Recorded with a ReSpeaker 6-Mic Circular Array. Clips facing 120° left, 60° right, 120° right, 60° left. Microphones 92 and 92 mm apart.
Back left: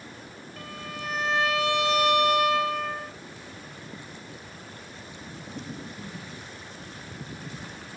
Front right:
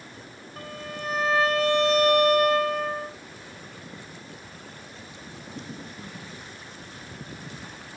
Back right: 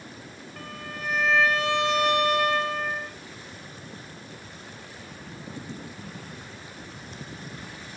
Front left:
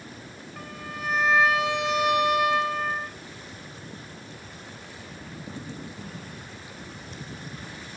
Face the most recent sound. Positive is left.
turn(degrees=-20)